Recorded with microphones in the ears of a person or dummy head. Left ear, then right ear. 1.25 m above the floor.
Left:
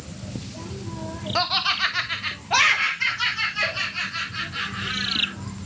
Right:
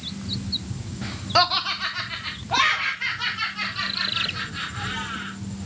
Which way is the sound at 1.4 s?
15° right (ahead or behind).